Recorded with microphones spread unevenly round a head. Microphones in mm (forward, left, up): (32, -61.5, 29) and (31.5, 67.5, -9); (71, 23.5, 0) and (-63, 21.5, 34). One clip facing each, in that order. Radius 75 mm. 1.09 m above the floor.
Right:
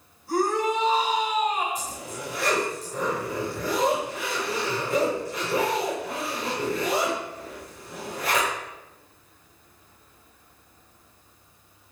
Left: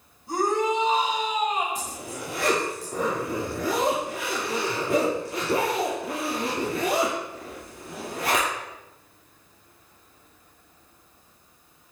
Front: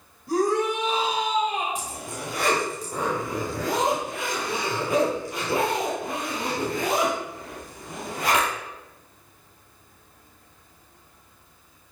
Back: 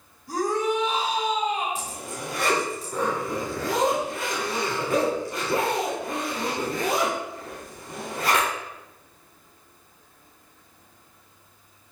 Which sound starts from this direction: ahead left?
A shout, at 0.3 s.